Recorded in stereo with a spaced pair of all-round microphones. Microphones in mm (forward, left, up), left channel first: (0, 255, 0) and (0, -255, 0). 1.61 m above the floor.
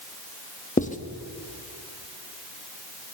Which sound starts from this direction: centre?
Writing, at 0.8 s.